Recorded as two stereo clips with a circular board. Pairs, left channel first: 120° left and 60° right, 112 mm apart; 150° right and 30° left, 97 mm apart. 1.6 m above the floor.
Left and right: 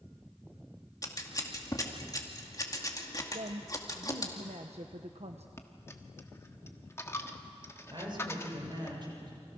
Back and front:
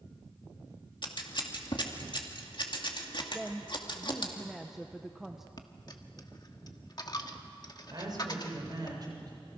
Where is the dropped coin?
Straight behind, 1.5 m.